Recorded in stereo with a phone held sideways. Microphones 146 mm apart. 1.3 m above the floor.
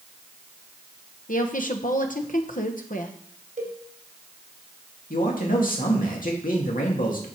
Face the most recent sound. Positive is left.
turn(degrees=70)  # may be behind; listen again after turning